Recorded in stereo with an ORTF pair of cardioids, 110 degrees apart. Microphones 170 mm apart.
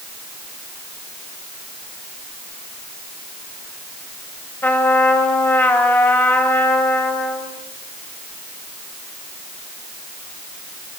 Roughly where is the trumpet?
Ahead.